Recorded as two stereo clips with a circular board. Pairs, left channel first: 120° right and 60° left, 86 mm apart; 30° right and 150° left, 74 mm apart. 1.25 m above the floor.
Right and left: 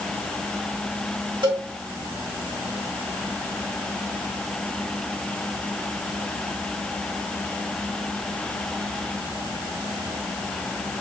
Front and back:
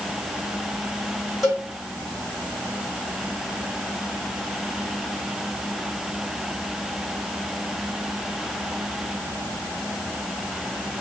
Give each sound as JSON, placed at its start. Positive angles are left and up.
{"t": 1.4, "sound": "a cowbell", "azimuth_deg": 60, "distance_m": 1.9}